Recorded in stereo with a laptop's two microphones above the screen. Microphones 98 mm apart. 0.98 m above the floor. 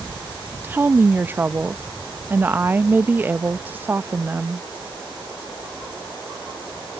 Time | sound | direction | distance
0.6 | a woman speaking | 20° right (ahead or behind) | ?